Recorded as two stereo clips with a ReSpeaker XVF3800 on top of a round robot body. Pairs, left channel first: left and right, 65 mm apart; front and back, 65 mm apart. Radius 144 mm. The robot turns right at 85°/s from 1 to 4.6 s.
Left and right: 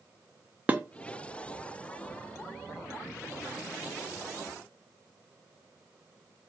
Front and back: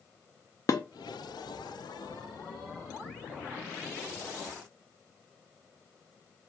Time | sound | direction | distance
0.7 | dishes clattering | 25° right | 0.7 m